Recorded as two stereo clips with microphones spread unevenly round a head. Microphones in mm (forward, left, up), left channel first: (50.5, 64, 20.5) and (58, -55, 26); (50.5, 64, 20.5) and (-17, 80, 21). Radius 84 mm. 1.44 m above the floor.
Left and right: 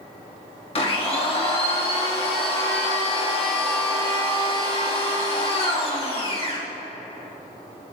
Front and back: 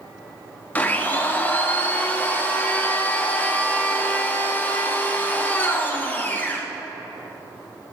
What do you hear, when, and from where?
0.8 s a blender: 55° left, 1.6 m